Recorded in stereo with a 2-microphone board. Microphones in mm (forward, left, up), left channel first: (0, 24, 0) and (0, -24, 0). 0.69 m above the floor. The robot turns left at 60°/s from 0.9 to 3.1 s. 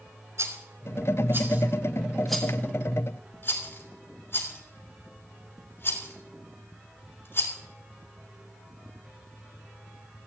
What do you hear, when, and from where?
0.4 s a rattle: 65° right (ahead or behind), 3 m; by 7.5 s 50° left (ahead or behind), 3 m